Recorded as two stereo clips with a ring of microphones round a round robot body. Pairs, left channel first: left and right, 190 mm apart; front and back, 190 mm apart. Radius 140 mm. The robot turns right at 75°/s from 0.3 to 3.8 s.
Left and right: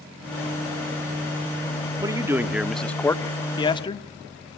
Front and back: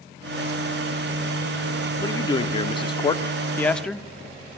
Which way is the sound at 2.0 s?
50° right.